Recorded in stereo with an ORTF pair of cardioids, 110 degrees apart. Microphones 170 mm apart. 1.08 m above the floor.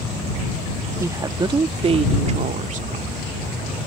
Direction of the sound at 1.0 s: 15° right.